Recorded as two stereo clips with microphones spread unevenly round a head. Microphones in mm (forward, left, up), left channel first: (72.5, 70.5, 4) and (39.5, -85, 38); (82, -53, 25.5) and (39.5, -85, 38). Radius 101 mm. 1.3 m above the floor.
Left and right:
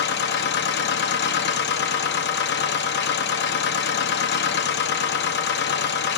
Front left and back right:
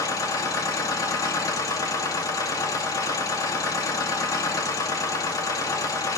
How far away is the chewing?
No chewing in this recording.